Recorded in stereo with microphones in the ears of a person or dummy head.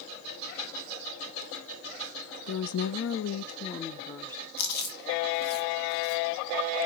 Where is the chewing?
60° left (ahead or behind), 1.9 m.